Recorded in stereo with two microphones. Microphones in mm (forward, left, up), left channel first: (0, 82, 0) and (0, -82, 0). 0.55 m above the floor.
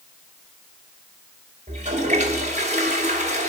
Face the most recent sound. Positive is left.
turn(degrees=-45)  # may be behind; listen again after turning